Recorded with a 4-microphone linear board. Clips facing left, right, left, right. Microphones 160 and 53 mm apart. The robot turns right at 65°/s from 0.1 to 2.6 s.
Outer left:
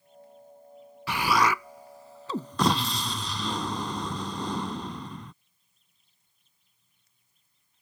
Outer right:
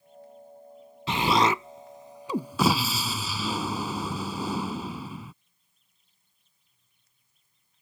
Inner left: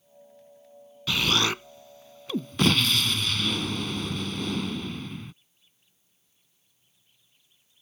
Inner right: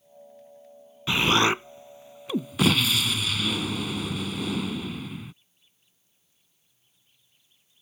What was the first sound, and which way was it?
An explosion, 25° right (ahead or behind).